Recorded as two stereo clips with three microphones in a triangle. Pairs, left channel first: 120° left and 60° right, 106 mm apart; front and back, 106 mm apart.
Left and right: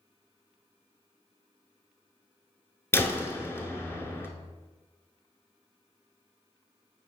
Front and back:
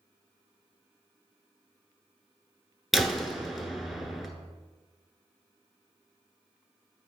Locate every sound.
2.9 s a door slam: 90° left, 0.9 m